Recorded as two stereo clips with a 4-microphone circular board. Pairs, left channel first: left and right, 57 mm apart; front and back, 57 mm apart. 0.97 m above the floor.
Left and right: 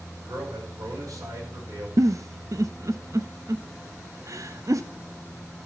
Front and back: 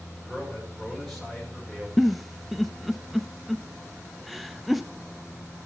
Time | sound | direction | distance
0.2 | a man speaking | 90° right | 5 m
2.0 | a giggle | 90° right | 0.5 m